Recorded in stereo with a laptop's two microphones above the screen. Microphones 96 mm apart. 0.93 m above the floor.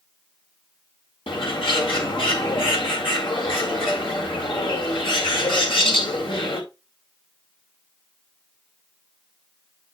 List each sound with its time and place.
1.3 s a bird: 65° left (ahead or behind), 2 m